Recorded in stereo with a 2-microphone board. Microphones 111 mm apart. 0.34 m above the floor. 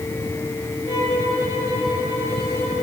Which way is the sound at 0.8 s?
80° left.